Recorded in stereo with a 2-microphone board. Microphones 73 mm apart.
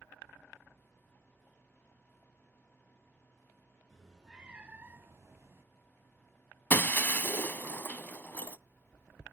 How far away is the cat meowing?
About 1.8 m.